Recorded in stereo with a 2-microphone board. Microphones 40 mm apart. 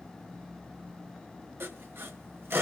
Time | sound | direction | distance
1.6 | sawing | 70° right (ahead or behind) | 1.6 m